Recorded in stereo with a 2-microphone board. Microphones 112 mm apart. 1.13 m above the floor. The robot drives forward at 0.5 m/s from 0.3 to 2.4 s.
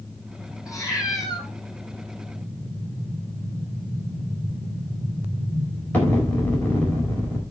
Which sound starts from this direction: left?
A cat meowing, at 0.7 s.